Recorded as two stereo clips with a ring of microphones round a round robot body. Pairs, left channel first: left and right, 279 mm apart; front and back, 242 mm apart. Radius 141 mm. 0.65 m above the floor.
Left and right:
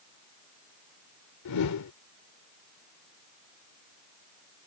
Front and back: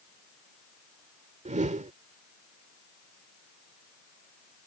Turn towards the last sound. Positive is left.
turn(degrees=120)